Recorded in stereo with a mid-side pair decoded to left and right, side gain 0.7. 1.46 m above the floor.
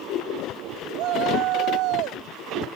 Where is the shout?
55° right; by 2.3 s 65° right.